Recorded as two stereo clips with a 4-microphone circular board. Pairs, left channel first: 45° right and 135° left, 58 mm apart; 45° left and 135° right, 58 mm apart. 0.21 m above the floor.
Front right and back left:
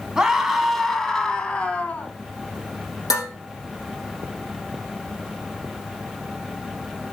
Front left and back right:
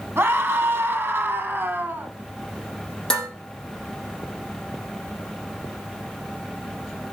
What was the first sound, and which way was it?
A scream, 150° right.